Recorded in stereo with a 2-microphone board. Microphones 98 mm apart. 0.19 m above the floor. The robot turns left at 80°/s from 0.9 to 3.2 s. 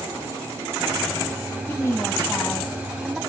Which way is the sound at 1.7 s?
20° left (ahead or behind).